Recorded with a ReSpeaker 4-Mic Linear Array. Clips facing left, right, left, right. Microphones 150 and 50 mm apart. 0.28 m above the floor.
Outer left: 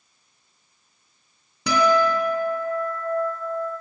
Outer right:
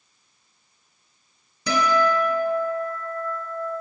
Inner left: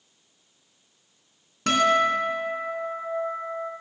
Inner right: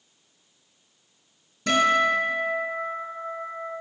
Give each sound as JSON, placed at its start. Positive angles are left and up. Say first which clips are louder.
{"t": 1.7, "sound": "a guitar", "louder": "outer left 2 dB, even", "side_deg": 65, "distance_m": 3.0}